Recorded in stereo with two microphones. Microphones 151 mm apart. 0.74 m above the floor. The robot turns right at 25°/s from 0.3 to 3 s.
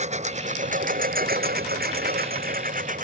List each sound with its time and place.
0.0 s a lawn mower: 50° right (ahead or behind); by 3.0 s 60° right (ahead or behind)